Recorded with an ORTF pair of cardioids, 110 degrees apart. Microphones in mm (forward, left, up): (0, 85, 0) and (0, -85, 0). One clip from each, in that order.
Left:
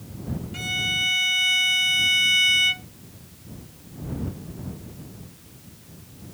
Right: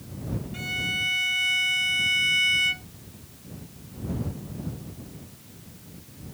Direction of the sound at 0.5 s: 20° left.